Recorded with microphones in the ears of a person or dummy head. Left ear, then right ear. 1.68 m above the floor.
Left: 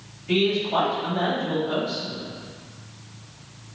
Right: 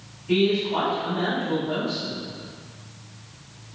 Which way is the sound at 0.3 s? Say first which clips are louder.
Even; 75° left (ahead or behind).